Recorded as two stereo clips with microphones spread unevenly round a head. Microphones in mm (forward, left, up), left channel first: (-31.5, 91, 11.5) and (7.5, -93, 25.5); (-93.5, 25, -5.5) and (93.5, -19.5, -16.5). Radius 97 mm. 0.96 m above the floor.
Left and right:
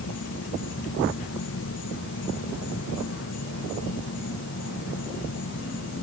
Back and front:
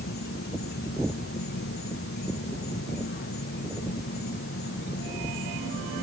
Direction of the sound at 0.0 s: 130° left.